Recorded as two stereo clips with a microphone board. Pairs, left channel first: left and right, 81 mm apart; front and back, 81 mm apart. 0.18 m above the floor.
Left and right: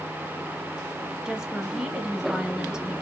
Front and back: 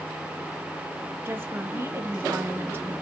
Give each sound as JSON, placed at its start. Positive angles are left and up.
{"t": 1.2, "sound": "a woman speaking", "azimuth_deg": -160, "distance_m": 1.1}